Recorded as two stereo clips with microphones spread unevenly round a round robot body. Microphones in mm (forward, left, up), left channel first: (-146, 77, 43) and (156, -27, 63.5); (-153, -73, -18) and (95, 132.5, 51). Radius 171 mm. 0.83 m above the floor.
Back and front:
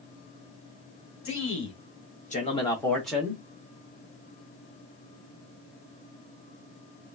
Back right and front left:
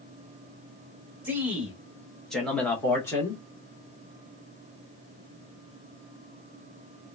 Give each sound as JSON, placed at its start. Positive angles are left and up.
{"t": 1.2, "sound": "a man speaking", "azimuth_deg": 135, "distance_m": 1.4}